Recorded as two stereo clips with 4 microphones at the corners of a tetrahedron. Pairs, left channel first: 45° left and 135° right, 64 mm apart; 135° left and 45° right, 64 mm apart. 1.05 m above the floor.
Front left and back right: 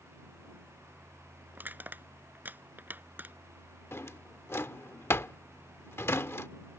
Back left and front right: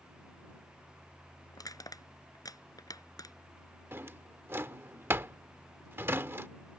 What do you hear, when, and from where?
1.5 s crushing: 160° left
3.9 s a drawer: 5° left